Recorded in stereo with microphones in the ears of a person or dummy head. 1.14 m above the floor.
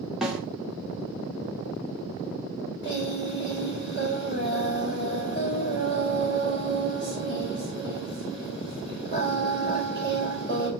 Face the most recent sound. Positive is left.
turn(degrees=25)  # may be behind; listen again after turning